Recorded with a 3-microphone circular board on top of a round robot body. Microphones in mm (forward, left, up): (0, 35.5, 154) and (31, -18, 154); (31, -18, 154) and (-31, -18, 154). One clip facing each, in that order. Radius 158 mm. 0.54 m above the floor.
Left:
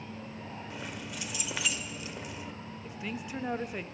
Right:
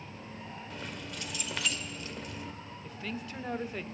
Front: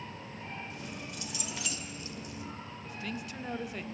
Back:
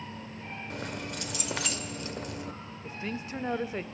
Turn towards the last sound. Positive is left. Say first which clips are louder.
# left 1 dB, back 4 dB
turn(degrees=-175)